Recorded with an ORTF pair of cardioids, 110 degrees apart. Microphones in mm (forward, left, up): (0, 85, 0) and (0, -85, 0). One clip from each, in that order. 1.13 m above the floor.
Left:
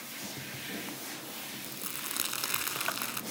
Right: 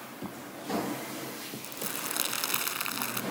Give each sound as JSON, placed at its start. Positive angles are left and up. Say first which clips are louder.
{"t": 1.6, "sound": "crumpling", "louder": "right 7 dB", "azimuth_deg": -15}